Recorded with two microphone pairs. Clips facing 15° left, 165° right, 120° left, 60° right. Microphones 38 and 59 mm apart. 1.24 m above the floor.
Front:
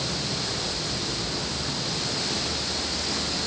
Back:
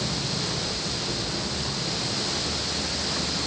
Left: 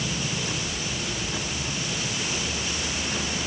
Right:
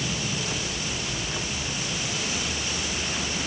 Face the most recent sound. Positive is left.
No sound to turn to.